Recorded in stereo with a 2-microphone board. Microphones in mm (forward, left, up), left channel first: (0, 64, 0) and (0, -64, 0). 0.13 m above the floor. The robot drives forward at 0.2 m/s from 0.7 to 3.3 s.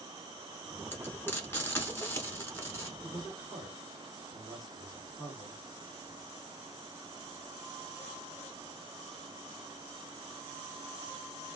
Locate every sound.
0.9 s frying: 15° left (ahead or behind), 1.2 m; by 2.9 s 20° left (ahead or behind), 1.1 m
3.0 s a man speaking: 30° left (ahead or behind), 2 m